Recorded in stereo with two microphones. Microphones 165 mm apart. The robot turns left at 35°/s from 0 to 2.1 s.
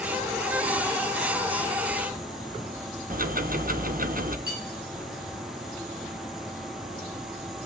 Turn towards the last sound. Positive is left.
turn(degrees=-75)  # may be behind; listen again after turning